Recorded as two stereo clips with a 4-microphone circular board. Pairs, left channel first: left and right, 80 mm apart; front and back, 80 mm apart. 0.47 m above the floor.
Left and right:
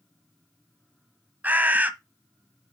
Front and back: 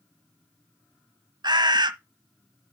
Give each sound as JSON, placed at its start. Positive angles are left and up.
{"t": 1.4, "sound": "a bird", "azimuth_deg": -160, "distance_m": 1.0}